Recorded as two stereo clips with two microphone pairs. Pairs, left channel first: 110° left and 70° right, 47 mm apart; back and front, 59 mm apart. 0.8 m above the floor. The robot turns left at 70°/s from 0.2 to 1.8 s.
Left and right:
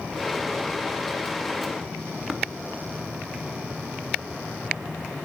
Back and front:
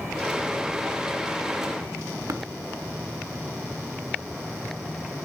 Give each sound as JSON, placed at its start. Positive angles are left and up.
{"t": 2.3, "sound": "tapping", "azimuth_deg": 10, "distance_m": 1.0}